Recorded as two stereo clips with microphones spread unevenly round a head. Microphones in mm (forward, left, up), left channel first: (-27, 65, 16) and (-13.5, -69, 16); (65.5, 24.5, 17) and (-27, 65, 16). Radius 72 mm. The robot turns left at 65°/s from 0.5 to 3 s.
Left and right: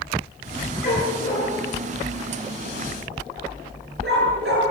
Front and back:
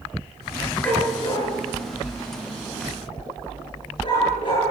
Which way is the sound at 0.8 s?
55° left.